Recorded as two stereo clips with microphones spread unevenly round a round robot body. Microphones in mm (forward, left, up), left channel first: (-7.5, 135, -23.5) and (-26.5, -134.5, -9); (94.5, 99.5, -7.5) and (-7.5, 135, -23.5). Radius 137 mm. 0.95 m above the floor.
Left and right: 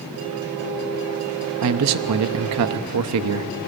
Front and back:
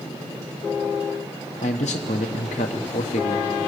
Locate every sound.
1.6 s a man speaking: 60° right, 1.0 m